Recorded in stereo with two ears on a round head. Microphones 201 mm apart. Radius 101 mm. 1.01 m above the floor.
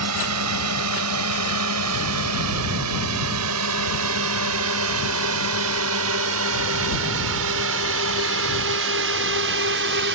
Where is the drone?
80° right; by 10.2 s 55° right (ahead or behind).